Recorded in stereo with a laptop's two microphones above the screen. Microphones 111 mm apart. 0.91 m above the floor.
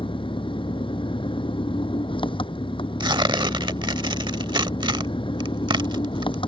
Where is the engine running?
50° left (ahead or behind).